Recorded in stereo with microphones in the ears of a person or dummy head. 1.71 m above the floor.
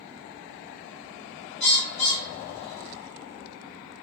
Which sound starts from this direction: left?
A bird, at 1.6 s.